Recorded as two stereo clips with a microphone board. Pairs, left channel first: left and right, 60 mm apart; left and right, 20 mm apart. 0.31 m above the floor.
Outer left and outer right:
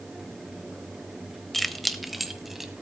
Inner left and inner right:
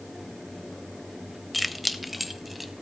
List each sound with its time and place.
1.5 s keys jangling: 5° left (ahead or behind), 0.9 m; by 2.7 s 5° right (ahead or behind), 1.6 m